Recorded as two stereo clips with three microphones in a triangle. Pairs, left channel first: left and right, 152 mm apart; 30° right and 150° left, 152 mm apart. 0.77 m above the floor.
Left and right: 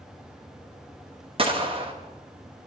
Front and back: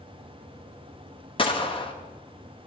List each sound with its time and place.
1.4 s a gunshot: 60° right, 0.9 m